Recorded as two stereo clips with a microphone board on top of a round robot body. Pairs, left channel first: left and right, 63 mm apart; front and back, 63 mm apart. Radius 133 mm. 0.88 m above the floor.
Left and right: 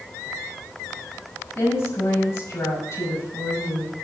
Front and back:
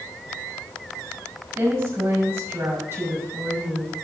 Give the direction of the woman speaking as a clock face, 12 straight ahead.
8 o'clock.